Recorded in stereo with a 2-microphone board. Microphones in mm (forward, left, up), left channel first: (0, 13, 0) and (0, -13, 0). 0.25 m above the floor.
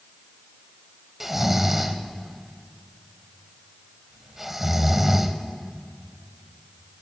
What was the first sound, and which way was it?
Snoring, 10° right (ahead or behind).